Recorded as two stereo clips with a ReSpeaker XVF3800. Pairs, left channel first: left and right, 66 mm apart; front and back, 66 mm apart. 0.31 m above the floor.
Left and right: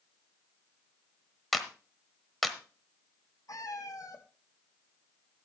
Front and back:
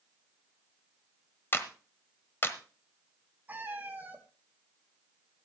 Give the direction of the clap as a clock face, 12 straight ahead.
12 o'clock.